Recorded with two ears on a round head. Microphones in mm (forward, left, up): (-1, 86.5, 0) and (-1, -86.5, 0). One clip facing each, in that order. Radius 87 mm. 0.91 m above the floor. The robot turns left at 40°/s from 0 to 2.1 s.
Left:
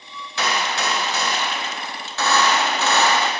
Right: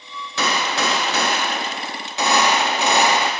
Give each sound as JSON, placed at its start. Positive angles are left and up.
{"t": 0.4, "sound": "a gunshot", "azimuth_deg": -95, "distance_m": 0.6}